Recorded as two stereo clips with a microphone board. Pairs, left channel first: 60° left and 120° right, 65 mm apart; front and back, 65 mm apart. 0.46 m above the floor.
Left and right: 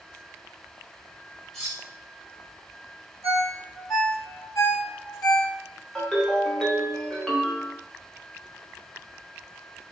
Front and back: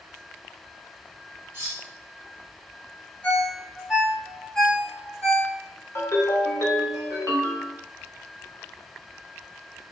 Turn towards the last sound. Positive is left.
turn(degrees=-15)